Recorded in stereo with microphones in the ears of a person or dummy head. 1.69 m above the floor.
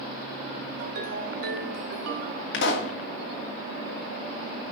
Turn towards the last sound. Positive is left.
turn(degrees=65)  # may be behind; listen again after turning